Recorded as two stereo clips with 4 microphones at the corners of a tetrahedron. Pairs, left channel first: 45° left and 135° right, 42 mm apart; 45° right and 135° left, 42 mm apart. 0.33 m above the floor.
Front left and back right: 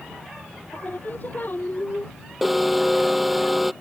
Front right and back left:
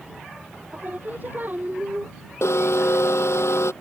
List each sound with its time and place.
0.7 s singing: 90° left
2.4 s an alarm: 45° right